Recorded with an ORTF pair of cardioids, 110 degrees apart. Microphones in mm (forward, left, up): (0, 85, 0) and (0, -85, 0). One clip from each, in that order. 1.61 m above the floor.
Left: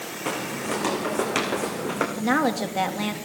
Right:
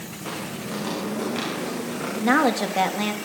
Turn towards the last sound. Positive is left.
turn(degrees=-15)